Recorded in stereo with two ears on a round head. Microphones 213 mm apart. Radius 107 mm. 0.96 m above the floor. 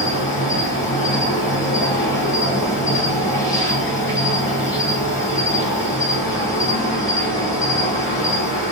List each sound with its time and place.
0.0 s an insect: 15° left (ahead or behind), 1.4 m